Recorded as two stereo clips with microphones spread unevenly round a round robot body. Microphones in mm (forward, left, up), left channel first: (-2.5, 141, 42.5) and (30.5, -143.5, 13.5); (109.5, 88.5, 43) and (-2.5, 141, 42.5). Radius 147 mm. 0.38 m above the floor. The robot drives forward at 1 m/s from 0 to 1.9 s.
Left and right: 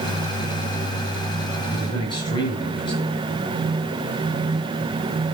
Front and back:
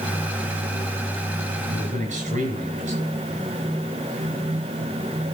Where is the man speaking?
170° left, 5 m.